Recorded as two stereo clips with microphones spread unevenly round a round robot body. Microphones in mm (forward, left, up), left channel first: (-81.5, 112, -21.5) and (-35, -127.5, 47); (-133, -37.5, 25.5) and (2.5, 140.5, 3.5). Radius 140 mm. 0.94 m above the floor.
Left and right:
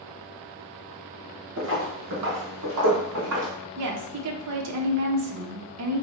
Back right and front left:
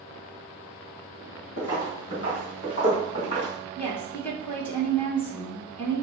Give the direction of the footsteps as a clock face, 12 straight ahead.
2 o'clock.